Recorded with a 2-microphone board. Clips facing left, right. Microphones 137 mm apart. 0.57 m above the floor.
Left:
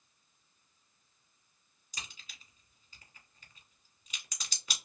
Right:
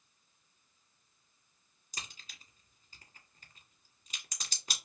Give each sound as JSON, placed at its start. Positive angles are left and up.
{"t": 1.9, "sound": "a crack", "side_deg": -35, "distance_m": 1.4}